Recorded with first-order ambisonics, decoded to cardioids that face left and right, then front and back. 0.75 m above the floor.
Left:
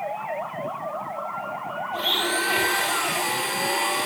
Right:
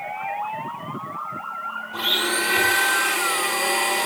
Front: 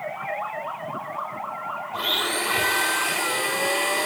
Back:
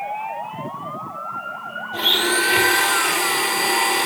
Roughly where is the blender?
Behind.